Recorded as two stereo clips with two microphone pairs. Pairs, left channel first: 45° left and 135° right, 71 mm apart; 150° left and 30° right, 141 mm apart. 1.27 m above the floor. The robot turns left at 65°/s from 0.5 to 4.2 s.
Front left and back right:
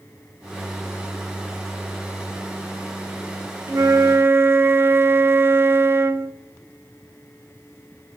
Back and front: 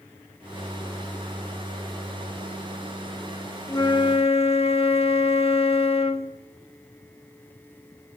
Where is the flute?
150° right, 1.1 m; by 6.3 s straight behind, 1.1 m.